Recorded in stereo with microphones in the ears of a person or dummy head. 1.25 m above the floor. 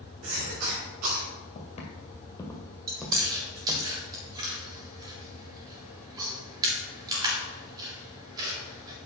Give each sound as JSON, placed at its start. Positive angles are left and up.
{"t": 0.2, "sound": "a cough", "side_deg": -85, "distance_m": 4.0}
{"t": 1.6, "sound": "footsteps", "side_deg": 40, "distance_m": 2.0}
{"t": 2.9, "sound": "chewing", "side_deg": -25, "distance_m": 3.5}